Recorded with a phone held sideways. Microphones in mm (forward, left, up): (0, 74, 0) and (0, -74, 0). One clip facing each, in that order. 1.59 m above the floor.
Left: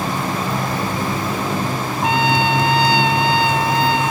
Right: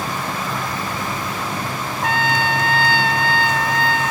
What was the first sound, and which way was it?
A motorcycle, 30° left (ahead or behind).